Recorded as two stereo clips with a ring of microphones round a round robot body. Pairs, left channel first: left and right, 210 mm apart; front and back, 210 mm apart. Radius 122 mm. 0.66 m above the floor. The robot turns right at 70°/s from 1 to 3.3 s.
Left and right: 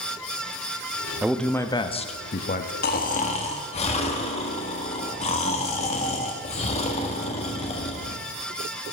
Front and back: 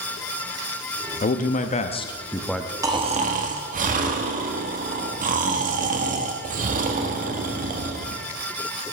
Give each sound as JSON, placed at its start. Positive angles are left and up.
{"t": 1.2, "sound": "a man speaking", "azimuth_deg": -5, "distance_m": 0.7}
{"t": 2.8, "sound": "snoring", "azimuth_deg": 110, "distance_m": 1.1}